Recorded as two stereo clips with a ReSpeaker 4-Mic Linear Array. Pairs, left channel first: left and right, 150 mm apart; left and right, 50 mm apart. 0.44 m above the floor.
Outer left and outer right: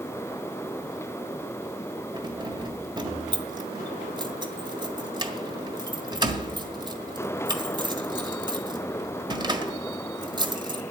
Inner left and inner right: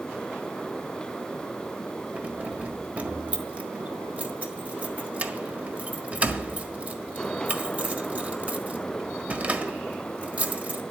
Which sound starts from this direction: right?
Keys jangling, at 2.1 s.